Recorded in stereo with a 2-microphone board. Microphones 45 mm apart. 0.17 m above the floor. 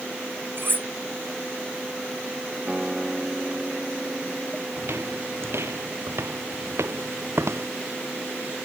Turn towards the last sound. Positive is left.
turn(degrees=-80)